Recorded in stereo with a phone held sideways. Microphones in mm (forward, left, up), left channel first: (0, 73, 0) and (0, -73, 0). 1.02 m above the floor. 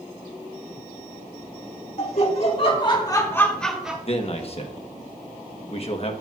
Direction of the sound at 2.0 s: 50° left (ahead or behind).